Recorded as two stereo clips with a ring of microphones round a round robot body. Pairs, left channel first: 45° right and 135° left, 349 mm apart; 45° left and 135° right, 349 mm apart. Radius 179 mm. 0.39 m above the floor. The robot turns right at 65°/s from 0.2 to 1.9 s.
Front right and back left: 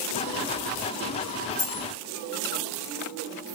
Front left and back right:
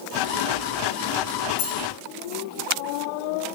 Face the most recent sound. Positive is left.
turn(degrees=40)